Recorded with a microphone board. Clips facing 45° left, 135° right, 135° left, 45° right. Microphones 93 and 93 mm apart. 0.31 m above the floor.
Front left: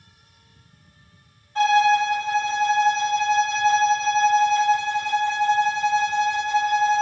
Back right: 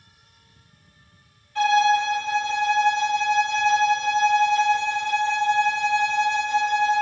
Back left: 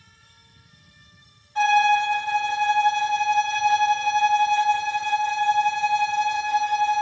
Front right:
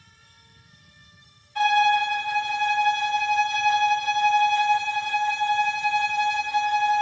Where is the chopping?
I don't hear chopping.